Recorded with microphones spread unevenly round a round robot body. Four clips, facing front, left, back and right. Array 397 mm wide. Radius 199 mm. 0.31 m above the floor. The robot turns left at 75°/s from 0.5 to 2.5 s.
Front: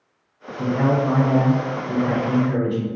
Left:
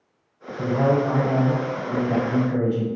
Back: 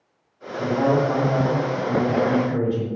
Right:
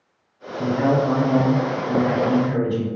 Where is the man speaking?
65° left, 1.0 m; by 2.9 s 80° right, 1.0 m.